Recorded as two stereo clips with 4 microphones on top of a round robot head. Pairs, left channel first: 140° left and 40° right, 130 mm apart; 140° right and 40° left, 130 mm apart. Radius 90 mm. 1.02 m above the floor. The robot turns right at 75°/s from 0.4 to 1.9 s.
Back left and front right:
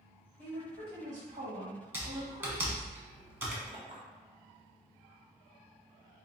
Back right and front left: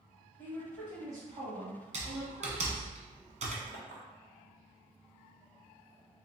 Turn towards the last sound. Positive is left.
turn(degrees=15)